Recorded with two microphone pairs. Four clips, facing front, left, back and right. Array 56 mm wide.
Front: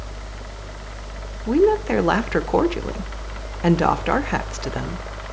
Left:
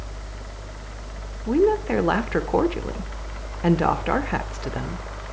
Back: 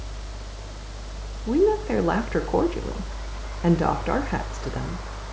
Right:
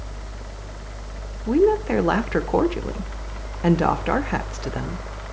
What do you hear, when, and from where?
1.5 s a woman speaking: 5° left, 0.8 m